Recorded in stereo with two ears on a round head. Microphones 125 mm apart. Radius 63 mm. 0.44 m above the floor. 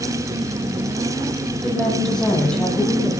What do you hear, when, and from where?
1.6 s a woman speaking: 5° left (ahead or behind), 9 m; by 3.1 s 10° left (ahead or behind), 10 m